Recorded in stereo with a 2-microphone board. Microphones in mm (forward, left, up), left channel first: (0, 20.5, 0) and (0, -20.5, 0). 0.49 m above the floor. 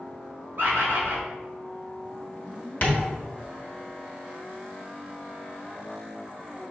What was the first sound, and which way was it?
A bird, 70° right (ahead or behind).